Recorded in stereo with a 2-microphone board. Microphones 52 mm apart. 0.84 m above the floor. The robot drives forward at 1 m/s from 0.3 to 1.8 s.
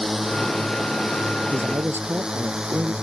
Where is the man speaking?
40° right (ahead or behind); by 2.9 s 45° right (ahead or behind).